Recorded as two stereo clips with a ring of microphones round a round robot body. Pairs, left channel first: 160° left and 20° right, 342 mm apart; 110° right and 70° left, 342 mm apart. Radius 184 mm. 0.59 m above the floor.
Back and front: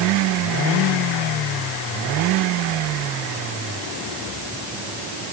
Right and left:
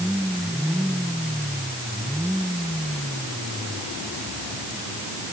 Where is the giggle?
No giggle in this recording.